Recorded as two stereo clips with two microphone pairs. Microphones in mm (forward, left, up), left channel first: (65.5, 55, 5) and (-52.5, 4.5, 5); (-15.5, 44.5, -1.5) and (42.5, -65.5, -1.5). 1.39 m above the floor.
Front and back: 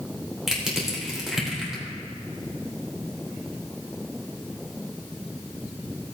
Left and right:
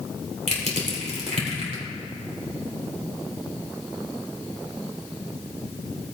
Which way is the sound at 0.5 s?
70° right.